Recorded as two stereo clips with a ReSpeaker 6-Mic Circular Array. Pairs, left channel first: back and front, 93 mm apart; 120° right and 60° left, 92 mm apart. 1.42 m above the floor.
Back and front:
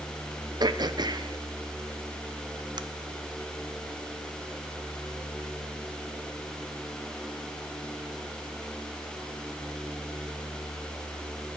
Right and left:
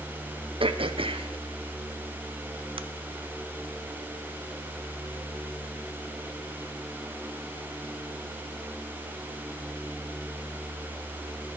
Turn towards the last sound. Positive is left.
turn(degrees=40)